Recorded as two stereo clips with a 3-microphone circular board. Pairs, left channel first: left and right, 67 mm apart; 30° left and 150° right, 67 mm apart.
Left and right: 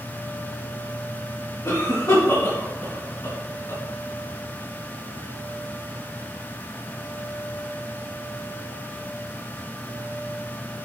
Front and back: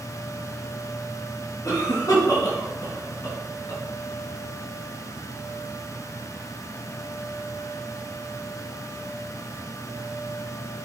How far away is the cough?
About 4.5 m.